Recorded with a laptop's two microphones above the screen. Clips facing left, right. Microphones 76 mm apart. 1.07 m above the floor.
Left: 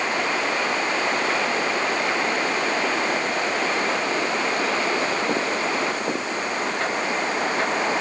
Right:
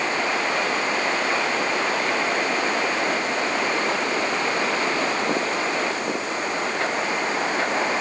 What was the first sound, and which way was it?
Only background noise.